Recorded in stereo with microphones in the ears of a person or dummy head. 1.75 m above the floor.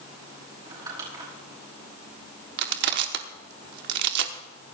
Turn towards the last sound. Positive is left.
turn(degrees=-60)  # may be behind; listen again after turning